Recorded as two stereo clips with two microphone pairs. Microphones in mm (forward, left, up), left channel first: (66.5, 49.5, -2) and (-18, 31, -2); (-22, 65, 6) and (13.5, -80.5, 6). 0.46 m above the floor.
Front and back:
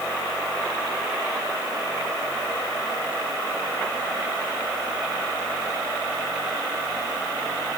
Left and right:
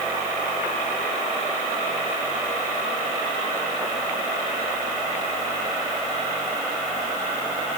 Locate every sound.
Only background noise.